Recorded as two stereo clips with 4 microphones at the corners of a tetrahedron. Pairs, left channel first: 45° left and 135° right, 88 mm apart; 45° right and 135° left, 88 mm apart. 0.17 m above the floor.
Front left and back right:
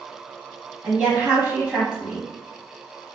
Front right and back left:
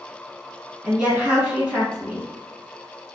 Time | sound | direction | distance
0.8 | a woman speaking | 175° left | 1.1 m